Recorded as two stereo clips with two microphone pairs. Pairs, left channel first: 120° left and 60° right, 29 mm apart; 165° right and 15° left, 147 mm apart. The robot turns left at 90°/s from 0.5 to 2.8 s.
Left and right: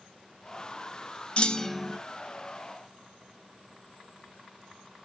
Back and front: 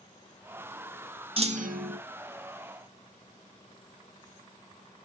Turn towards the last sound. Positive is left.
turn(degrees=-65)